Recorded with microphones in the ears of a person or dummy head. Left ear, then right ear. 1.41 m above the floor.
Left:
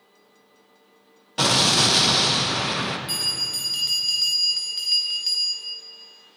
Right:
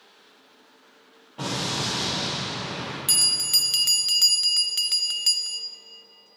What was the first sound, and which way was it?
An explosion, 75° left (ahead or behind).